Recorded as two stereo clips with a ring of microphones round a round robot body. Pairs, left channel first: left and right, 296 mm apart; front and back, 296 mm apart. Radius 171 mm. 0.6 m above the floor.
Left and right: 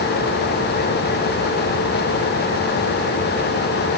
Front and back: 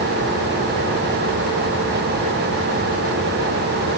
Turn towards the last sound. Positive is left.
No sound to turn to.